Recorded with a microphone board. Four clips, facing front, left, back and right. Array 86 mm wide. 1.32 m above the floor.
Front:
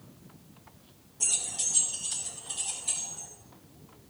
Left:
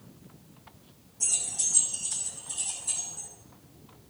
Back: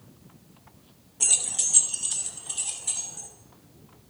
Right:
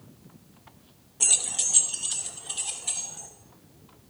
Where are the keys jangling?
120° right, 0.7 m; by 3.3 s 105° right, 3 m.